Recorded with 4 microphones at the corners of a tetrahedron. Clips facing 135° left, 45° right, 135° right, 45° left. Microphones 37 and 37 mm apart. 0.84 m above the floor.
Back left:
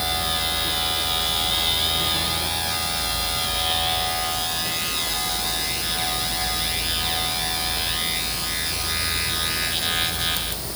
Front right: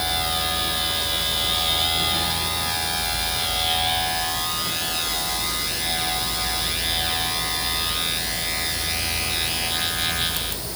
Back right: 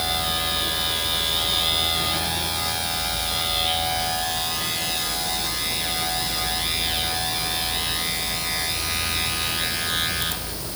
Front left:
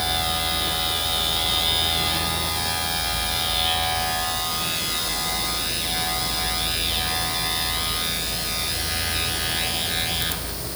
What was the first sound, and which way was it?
Only background noise.